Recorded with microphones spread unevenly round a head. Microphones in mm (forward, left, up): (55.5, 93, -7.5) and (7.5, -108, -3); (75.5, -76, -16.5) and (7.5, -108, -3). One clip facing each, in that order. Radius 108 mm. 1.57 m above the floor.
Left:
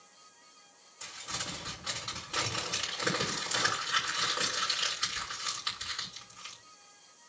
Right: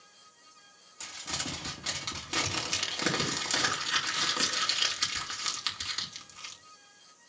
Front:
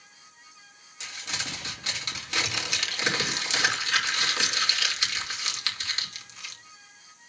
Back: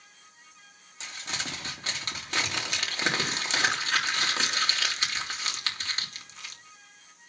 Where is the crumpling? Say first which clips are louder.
Right 5 dB, even; 100° right, 3.5 m.